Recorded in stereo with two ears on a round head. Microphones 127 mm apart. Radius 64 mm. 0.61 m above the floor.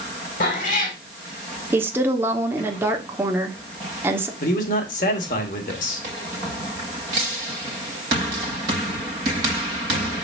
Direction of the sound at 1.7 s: 15° right (ahead or behind).